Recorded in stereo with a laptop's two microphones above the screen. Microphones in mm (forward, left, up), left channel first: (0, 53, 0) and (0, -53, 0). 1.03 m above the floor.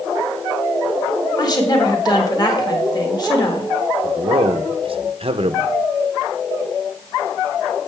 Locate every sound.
1.4 s a woman speaking: 35° left (ahead or behind), 1.6 m
4.0 s a man speaking: 55° right (ahead or behind), 0.8 m